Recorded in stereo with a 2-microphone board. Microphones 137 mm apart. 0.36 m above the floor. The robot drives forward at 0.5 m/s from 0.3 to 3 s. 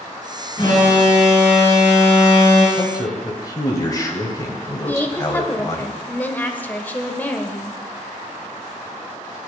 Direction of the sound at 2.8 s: 25° left (ahead or behind).